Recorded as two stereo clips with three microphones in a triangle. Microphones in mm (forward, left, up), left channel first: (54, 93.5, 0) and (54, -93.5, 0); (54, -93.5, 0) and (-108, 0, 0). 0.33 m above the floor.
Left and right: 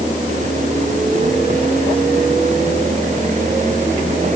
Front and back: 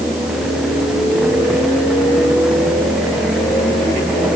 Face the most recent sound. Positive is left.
No sound to turn to.